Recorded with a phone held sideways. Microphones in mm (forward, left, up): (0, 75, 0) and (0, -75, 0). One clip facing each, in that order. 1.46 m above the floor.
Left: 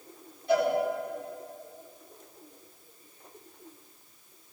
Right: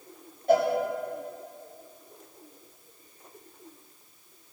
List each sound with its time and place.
0.5 s a cowbell: 45° right (ahead or behind), 2.5 m